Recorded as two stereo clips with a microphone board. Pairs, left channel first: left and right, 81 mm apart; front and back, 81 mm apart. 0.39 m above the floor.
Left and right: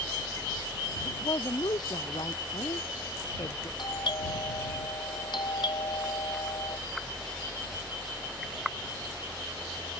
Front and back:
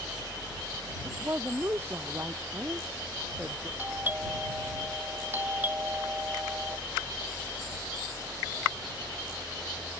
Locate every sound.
1.1 s a woman speaking: 120° left; by 3.7 s 115° left
3.8 s a doorbell: 115° left